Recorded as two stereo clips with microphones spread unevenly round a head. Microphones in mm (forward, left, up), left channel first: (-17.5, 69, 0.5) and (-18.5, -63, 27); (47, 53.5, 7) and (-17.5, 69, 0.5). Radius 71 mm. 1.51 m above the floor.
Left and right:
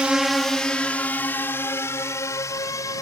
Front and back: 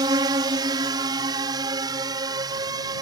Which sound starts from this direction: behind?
A drone, at 0.0 s.